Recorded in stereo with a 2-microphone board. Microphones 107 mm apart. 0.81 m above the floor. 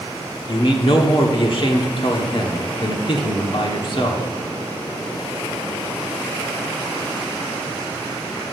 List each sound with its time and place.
0.5 s a man speaking: 50° left (ahead or behind), 1.5 m